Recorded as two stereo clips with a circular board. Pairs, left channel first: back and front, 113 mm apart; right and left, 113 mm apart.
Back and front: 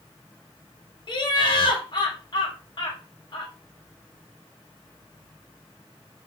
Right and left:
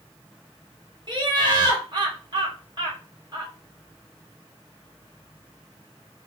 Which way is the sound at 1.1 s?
135° left.